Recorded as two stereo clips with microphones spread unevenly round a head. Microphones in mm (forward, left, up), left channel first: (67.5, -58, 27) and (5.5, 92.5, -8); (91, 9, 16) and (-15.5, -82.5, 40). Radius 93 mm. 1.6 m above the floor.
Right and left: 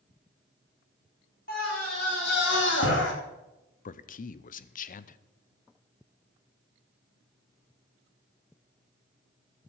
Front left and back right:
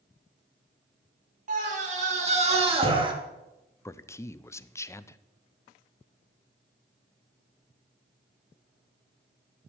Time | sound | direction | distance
1.5 | a scream | 110° right | 4 m
3.9 | a man speaking | 35° right | 0.6 m